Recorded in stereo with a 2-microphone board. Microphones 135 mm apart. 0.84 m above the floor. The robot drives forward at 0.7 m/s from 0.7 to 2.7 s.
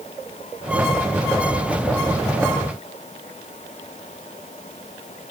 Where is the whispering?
I don't hear whispering.